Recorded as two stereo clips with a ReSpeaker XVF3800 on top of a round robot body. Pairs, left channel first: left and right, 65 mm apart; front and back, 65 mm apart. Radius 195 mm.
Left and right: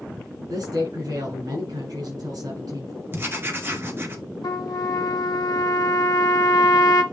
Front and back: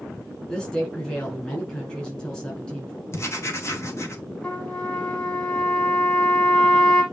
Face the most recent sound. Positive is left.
turn(degrees=75)